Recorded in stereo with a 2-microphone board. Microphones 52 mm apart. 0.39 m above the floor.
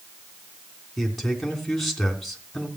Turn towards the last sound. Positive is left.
turn(degrees=5)  # may be behind; listen again after turning